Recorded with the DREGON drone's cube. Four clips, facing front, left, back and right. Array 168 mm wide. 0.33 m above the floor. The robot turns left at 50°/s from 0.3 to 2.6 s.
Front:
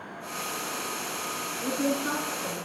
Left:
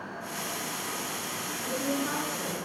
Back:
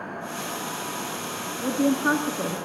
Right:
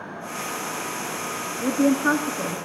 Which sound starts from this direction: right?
A woman speaking, at 1.6 s.